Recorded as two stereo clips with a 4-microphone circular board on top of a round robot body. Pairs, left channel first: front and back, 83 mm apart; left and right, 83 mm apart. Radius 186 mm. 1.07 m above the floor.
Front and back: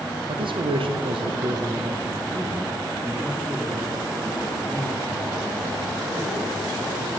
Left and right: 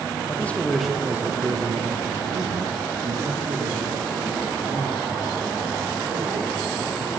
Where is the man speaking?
160° left, 0.9 m; by 7.2 s 85° right, 4 m.